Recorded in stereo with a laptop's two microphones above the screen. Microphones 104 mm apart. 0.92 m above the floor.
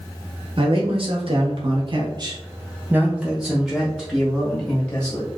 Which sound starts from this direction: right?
A man speaking, at 0.6 s.